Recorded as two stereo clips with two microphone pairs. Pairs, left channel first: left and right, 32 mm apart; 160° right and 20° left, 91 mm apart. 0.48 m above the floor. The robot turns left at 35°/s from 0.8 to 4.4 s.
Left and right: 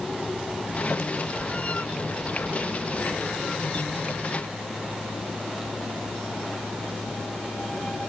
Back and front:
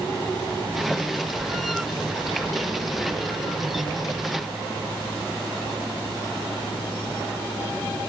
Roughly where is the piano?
I don't hear a piano.